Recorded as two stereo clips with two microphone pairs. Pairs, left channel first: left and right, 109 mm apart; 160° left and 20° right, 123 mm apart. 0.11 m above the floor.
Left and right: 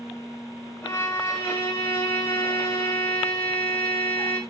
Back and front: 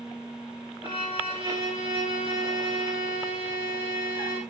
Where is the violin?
20° left, 5 m.